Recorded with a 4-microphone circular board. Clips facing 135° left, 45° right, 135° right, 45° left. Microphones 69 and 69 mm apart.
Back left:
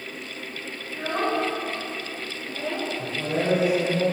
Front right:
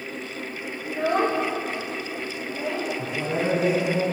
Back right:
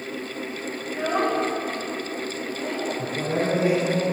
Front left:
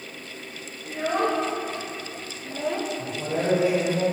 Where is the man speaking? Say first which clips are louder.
Front right 1 dB, back right 2 dB; 95° right, 2.5 m.